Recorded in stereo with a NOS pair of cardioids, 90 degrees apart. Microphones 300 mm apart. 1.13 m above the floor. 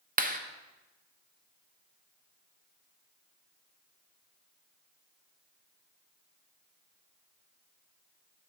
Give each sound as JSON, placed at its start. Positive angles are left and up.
{"t": 0.2, "sound": "a clap", "azimuth_deg": -30, "distance_m": 0.6}